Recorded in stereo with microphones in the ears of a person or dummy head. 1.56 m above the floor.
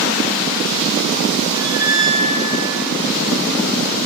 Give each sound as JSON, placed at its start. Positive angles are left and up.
{"t": 1.5, "sound": "a squeak", "side_deg": 55, "distance_m": 0.8}